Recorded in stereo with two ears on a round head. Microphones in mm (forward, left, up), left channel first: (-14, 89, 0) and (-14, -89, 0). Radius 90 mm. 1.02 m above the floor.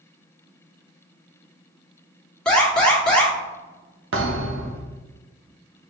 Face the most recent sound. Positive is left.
turn(degrees=-65)  # may be behind; listen again after turning